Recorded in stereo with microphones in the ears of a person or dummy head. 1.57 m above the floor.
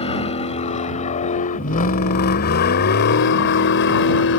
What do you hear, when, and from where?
0.0 s a vehicle: 30° left (ahead or behind); by 4.4 s 70° left (ahead or behind)